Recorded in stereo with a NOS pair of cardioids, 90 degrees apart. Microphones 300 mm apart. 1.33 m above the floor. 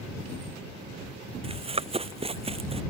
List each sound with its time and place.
1.4 s running footsteps: 20° right